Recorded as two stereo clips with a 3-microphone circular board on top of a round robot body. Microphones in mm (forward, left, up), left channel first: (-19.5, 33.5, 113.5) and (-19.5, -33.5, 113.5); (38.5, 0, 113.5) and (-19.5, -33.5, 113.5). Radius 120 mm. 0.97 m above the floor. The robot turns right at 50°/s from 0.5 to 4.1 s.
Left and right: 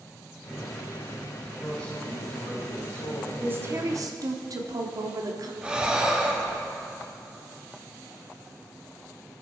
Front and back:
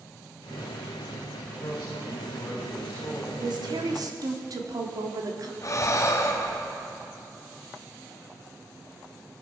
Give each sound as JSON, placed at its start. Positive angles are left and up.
{"t": 1.6, "sound": "a man speaking", "azimuth_deg": 20, "distance_m": 5.5}
{"t": 3.4, "sound": "a woman speaking", "azimuth_deg": -155, "distance_m": 2.0}
{"t": 5.6, "sound": "breathing", "azimuth_deg": -15, "distance_m": 1.5}